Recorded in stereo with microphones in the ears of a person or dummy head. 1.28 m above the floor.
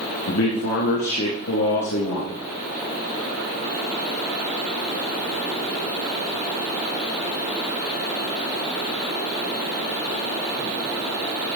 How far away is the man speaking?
About 1.7 m.